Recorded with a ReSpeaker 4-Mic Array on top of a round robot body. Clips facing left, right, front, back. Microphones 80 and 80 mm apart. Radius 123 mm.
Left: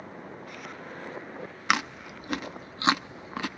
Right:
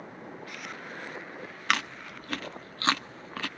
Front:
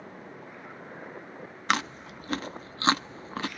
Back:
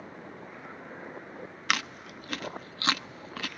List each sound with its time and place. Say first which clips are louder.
1.7 s chewing: left 2 dB, front 4 dB; 30° left, 0.8 m